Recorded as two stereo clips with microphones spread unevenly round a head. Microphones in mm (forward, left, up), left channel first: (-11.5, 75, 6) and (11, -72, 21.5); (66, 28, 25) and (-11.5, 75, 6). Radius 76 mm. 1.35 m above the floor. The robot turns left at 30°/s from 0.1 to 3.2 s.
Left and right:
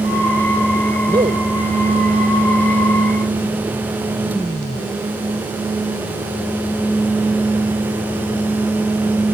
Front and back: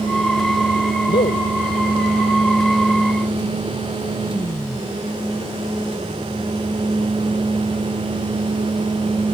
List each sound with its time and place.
1.1 s a man speaking: 15° right; by 1.5 s 30° right